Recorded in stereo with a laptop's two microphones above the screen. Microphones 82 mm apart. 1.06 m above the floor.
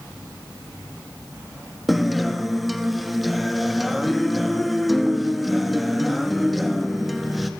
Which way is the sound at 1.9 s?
Centre (ahead or behind).